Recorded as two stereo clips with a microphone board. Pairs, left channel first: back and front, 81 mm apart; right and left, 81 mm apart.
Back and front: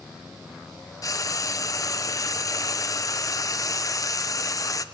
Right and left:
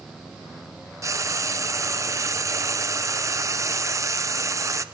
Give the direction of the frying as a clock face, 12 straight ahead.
7 o'clock.